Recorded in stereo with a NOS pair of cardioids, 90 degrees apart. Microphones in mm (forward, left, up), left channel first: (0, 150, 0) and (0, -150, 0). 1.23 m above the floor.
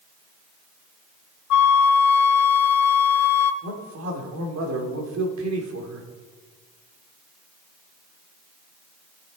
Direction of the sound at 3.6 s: 65° right.